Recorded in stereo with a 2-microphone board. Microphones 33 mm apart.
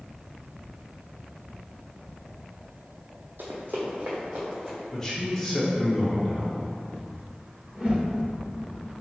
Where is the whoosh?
30° right (ahead or behind), 1.5 m.